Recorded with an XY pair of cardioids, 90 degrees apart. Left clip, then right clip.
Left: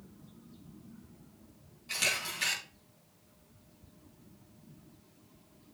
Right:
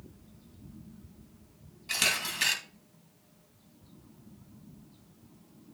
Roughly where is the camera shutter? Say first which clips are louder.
Right 3 dB; ahead right.